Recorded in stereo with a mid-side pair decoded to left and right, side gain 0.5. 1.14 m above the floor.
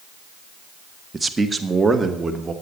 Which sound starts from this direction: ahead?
A man speaking, at 1.1 s.